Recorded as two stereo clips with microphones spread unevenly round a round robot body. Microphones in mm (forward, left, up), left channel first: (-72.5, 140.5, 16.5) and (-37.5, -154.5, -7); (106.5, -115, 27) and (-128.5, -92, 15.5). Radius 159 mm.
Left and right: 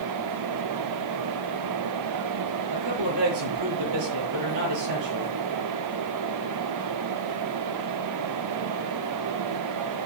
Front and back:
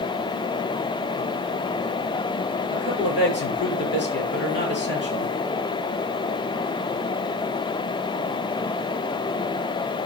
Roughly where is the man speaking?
Ahead right.